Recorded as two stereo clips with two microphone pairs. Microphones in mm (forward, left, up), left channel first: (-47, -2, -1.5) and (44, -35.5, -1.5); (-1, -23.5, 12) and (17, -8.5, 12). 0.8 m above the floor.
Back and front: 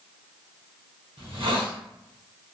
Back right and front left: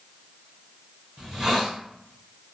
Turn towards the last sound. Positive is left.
turn(degrees=-20)